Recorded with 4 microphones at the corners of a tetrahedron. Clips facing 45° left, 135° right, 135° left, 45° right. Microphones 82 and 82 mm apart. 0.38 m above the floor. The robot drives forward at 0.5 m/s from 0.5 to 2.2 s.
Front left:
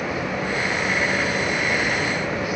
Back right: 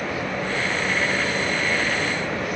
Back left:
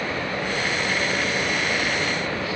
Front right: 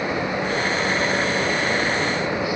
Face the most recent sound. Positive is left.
No sound to turn to.